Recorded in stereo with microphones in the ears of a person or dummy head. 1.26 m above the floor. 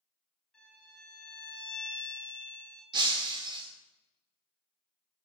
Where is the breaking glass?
30° right (ahead or behind), 2.5 m.